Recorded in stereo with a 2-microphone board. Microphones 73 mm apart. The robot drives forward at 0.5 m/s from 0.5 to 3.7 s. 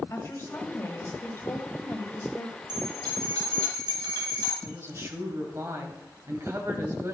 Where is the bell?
75° right (ahead or behind), 4.5 m.